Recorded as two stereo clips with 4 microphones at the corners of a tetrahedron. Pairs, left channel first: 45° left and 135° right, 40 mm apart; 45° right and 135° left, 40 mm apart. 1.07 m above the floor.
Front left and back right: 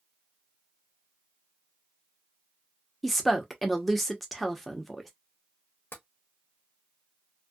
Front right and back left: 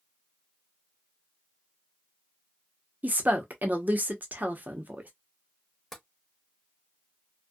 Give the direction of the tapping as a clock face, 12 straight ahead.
11 o'clock.